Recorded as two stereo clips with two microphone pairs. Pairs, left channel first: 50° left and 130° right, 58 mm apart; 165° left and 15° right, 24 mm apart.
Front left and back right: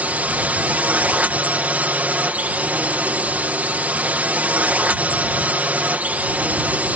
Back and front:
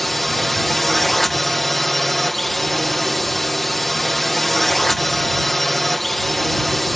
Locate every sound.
0.0 s a drone: 120° right